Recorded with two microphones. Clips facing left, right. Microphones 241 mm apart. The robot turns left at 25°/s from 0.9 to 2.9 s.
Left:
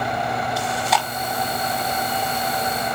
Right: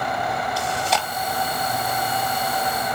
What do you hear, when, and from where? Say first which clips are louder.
0.6 s chewing: left 1 dB; 30° right (ahead or behind), 1.4 m